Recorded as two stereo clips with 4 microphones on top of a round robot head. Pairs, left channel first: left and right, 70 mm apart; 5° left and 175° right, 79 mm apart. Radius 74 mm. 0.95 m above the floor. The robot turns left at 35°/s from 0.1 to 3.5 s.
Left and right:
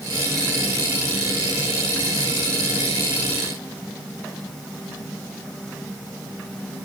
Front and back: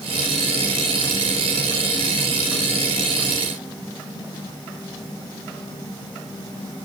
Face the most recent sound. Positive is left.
No sound to turn to.